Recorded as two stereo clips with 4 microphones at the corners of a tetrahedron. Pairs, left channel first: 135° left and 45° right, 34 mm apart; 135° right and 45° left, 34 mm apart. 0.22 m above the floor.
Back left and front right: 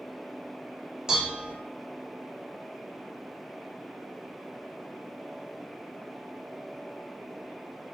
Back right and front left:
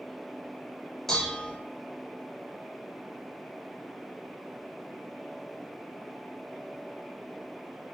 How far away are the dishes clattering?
About 0.6 m.